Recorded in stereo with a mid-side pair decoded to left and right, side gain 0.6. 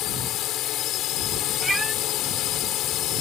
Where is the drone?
60° left.